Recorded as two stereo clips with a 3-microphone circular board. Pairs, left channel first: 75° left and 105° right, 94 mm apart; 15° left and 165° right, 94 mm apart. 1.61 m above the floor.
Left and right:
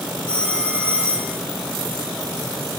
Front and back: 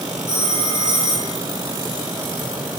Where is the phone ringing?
150° left, 4.5 m.